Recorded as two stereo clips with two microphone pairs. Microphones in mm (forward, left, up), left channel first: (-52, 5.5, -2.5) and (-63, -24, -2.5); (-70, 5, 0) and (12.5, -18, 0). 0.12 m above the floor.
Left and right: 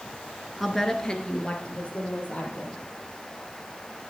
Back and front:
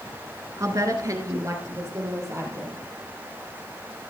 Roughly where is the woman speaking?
Ahead.